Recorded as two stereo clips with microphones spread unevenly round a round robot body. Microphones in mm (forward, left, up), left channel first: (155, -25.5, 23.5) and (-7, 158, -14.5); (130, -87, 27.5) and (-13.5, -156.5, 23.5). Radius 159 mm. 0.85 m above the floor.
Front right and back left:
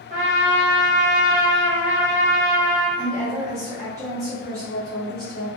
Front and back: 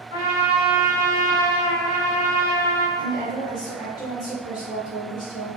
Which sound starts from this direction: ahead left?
A woman speaking, at 3.0 s.